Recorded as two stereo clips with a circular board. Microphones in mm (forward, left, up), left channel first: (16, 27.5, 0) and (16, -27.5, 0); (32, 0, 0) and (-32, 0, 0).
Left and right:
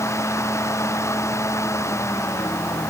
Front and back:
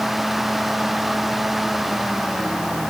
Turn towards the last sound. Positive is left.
No sound to turn to.